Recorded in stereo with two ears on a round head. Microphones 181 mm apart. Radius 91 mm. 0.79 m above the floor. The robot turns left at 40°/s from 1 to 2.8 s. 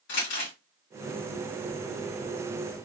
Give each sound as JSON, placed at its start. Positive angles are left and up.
{"t": 0.1, "sound": "crumpling", "side_deg": 55, "distance_m": 2.5}